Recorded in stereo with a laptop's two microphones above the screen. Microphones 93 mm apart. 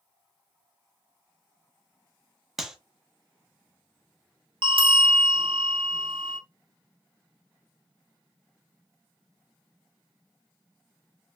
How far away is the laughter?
No laughter in this recording.